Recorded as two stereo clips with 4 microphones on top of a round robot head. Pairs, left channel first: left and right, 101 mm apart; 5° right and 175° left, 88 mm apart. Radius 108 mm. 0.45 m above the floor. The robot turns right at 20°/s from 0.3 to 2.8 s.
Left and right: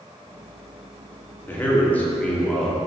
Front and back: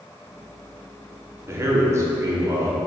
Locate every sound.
1.5 s a man speaking: 145° left, 1.6 m; by 2.8 s 170° left, 1.6 m